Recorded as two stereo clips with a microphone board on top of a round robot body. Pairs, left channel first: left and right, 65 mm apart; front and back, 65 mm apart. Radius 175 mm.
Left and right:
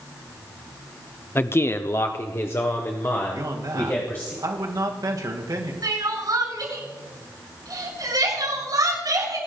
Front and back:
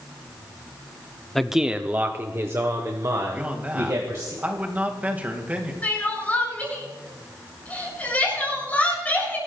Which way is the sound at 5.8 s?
65° right.